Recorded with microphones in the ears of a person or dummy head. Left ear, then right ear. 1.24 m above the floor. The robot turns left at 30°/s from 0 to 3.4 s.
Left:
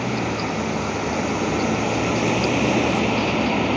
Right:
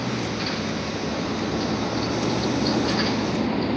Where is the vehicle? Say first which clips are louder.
Left 3 dB; 150° left; by 3.8 s 45° left.